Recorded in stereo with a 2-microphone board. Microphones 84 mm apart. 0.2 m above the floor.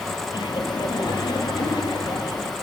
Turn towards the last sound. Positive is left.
turn(degrees=60)  # may be behind; listen again after turning